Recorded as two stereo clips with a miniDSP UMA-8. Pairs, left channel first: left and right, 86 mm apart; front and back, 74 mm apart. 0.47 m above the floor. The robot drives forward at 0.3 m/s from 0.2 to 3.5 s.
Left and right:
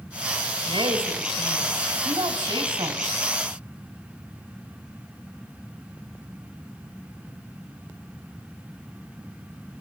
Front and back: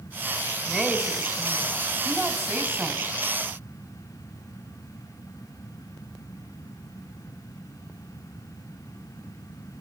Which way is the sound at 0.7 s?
110° right.